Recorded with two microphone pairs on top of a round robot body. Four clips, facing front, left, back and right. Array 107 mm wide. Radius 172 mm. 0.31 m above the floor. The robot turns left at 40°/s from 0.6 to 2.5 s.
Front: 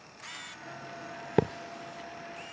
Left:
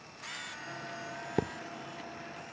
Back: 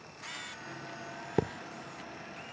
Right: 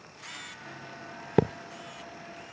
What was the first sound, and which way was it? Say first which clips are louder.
A thud: right 9 dB, front 5 dB; 55° right.